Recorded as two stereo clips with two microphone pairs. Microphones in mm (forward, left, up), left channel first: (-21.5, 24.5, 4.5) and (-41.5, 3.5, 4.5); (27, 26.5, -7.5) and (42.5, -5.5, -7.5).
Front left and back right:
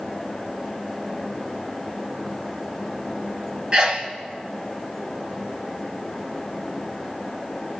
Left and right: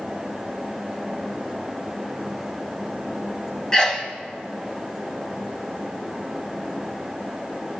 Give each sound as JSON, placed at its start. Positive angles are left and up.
{"t": 3.7, "sound": "a sneeze", "azimuth_deg": -175, "distance_m": 2.0}